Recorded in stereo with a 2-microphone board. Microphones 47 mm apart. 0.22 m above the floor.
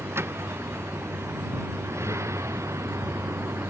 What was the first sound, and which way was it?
A vehicle, 60° right (ahead or behind).